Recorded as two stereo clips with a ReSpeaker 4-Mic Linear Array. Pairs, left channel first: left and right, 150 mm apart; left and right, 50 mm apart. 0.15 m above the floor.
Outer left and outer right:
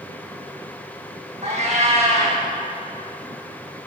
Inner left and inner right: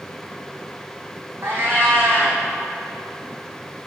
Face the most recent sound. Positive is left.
turn(degrees=-45)  # may be behind; listen again after turning